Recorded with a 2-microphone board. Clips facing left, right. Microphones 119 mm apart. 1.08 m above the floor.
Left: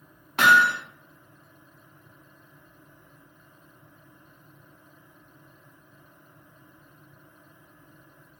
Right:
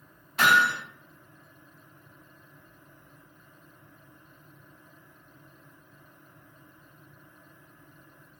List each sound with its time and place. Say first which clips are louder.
0.4 s hammering: left 3 dB; 70° left (ahead or behind), 0.9 m